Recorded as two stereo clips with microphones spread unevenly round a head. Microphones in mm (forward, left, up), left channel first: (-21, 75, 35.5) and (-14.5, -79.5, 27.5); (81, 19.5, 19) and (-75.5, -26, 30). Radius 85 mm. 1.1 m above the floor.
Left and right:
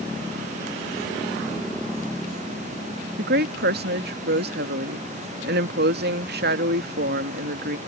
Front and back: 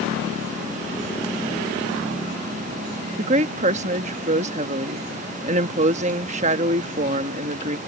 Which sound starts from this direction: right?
A woman speaking, at 3.2 s.